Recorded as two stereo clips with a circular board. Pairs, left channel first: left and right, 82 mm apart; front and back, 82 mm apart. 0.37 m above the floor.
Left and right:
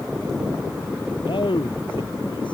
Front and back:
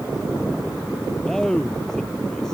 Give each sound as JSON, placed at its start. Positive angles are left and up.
{"t": 1.2, "sound": "a man speaking", "azimuth_deg": 85}